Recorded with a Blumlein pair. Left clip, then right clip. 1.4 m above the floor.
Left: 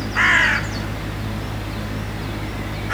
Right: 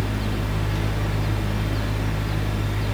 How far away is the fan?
About 0.8 m.